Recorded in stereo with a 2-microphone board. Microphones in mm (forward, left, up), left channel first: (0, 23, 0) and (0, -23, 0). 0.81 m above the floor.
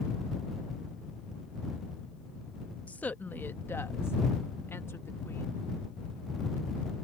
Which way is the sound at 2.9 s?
30° left (ahead or behind).